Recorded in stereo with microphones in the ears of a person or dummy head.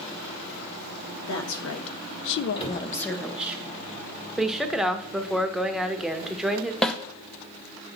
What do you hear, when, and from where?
1.2 s a woman speaking: 65° left (ahead or behind), 1.3 m; by 3.6 s 5° right (ahead or behind), 1.1 m
2.6 s a cupboard door: 30° left (ahead or behind), 2 m
4.4 s a woman speaking: 5° right (ahead or behind), 0.7 m
6.8 s a snare drum: 5° left (ahead or behind), 0.6 m